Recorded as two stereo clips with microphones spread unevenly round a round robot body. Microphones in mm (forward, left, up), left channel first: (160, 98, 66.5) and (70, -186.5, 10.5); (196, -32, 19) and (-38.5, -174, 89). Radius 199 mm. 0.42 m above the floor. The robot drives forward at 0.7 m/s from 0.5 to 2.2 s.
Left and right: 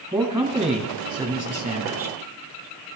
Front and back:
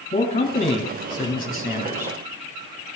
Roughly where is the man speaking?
Ahead right.